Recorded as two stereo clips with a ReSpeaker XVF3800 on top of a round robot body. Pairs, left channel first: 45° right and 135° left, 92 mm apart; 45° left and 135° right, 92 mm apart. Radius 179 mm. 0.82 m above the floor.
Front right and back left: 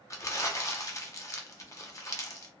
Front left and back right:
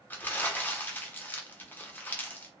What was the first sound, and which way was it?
Crumpling, 15° right.